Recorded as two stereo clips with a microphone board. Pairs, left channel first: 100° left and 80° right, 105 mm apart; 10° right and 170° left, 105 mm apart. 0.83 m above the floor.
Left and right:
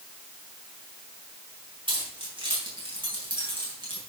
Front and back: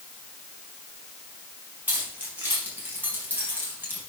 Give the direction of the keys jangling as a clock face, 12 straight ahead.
4 o'clock.